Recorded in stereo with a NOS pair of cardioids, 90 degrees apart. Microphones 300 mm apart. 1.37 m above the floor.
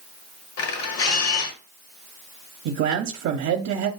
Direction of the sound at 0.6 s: 55° left.